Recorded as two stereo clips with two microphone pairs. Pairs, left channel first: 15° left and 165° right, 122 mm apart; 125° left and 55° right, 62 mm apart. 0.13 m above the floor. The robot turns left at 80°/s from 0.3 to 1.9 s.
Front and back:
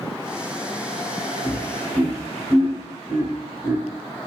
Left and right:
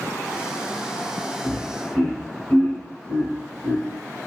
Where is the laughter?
175° right, 1.5 m; by 3.8 s 150° left, 1.5 m.